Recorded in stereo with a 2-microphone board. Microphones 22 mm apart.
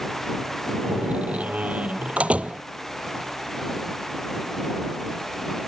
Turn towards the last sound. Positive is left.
turn(degrees=-80)